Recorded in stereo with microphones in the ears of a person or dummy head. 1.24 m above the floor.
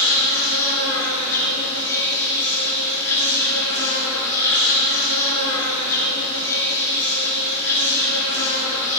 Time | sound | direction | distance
0.0 | an insect | 20° left (ahead or behind) | 2.5 m